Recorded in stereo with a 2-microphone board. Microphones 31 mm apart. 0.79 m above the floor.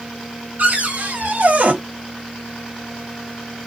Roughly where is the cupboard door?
Right.